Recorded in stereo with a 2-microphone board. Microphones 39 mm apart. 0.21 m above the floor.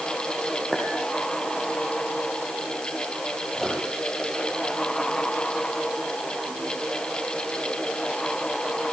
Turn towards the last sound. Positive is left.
turn(degrees=10)  # may be behind; listen again after turning